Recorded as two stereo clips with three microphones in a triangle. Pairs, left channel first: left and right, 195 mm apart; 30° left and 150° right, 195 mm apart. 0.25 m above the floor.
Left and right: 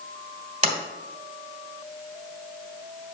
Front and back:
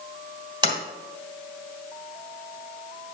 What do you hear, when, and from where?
0.6 s a sliding door: 100° right, 1.5 m